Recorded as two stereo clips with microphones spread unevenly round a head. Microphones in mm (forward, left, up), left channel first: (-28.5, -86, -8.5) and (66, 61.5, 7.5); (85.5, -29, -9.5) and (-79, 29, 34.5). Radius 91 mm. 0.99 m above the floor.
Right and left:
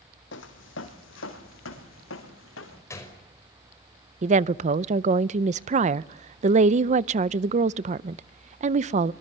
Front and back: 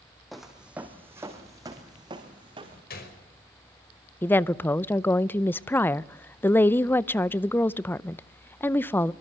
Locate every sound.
0.3 s footsteps: 115° right, 3 m; by 2.8 s 140° right, 5 m
2.9 s a gunshot: 50° right, 5.5 m
4.2 s a woman speaking: 30° left, 0.5 m